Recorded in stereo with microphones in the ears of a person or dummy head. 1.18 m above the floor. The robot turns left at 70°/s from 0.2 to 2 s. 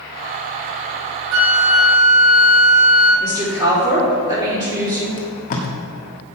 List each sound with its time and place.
1.3 s a flute: 80° right, 2.5 m; by 3.1 s 130° right, 2.5 m
3.2 s a woman speaking: 30° right (ahead or behind), 3.5 m
5.2 s tape being pulled: 45° left (ahead or behind), 1.3 m